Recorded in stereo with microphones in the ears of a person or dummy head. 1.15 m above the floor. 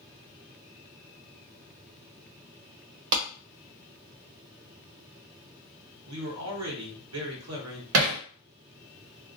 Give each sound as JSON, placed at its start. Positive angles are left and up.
{"t": 3.1, "sound": "a clap", "side_deg": -70, "distance_m": 1.0}
{"t": 6.1, "sound": "a man speaking", "side_deg": -80, "distance_m": 1.0}
{"t": 7.9, "sound": "hammering", "side_deg": -70, "distance_m": 0.6}